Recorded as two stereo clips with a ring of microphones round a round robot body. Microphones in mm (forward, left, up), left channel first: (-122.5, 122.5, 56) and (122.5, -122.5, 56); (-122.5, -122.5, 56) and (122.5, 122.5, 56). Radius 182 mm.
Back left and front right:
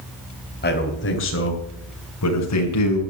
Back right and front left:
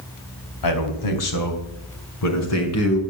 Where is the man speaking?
160° right, 4 m; by 3.0 s 175° left, 5.5 m.